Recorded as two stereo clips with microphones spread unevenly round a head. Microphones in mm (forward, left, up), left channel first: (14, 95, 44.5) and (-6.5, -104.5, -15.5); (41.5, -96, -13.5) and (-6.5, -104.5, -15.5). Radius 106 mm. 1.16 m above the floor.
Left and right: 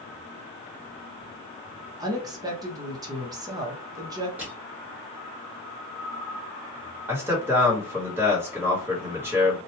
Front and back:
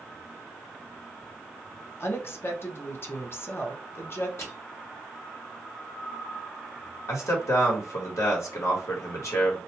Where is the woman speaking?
30° right, 0.8 m.